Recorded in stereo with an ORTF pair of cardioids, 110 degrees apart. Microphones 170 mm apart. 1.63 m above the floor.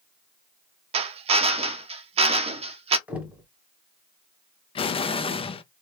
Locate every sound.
0.9 s a drill: 35° right, 0.6 m
3.1 s knocking: 10° right, 1.0 m
4.8 s an explosion: 35° left, 0.5 m